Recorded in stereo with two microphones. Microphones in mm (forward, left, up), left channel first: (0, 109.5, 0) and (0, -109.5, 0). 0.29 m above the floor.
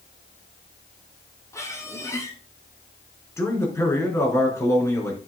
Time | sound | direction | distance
1.5 | a squeak | 15° left (ahead or behind) | 2 m
3.4 | a man speaking | 15° left (ahead or behind) | 4 m